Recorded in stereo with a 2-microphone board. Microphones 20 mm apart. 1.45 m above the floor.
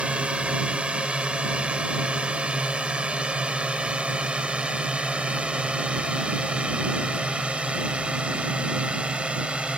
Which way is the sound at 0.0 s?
65° right (ahead or behind).